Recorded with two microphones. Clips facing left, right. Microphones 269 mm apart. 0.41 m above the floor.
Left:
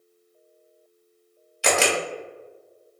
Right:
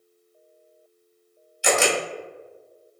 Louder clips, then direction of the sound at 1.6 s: Right 1 dB; 70° left (ahead or behind).